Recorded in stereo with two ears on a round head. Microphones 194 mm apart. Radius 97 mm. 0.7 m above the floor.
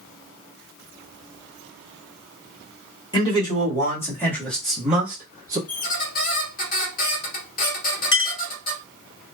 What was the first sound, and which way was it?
A man speaking, 20° left (ahead or behind).